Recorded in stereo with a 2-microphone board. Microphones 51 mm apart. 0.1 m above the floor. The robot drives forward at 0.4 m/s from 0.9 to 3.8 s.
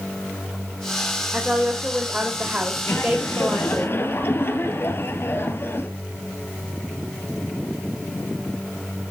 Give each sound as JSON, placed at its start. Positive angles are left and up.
{"t": 1.3, "sound": "a woman speaking", "side_deg": -25, "distance_m": 3.5}
{"t": 2.9, "sound": "laughter", "side_deg": 50, "distance_m": 2.5}